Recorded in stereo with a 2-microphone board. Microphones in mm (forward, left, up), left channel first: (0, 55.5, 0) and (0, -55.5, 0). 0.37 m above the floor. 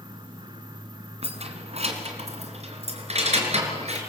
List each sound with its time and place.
1.2 s keys jangling: 65° right (ahead or behind), 2.5 m; by 4.0 s 70° right (ahead or behind), 4.5 m